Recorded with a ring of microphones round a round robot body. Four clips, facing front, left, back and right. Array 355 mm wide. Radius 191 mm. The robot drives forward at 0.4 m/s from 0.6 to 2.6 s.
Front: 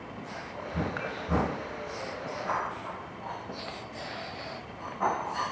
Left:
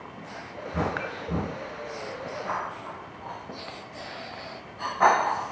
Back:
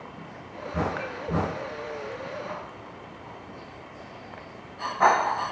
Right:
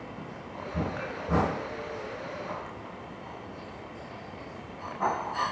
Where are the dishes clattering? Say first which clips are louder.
Left 2 dB, back 1 dB; 90° left, 3.5 m.